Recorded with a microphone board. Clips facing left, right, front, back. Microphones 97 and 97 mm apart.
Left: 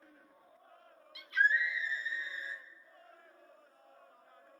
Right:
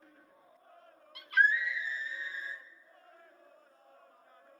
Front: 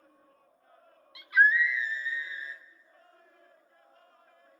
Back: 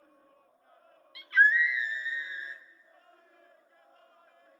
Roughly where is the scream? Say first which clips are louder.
Right 3 dB, front 1 dB; ahead right.